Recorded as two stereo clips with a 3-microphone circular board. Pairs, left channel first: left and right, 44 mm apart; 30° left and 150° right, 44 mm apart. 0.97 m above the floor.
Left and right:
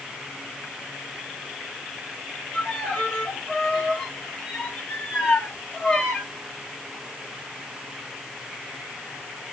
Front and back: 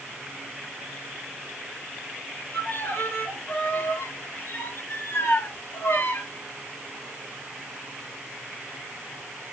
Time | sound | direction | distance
2.5 | a violin | 20° left | 3 m